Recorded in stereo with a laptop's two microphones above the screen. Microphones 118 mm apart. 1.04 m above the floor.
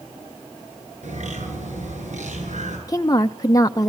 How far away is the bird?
About 9 m.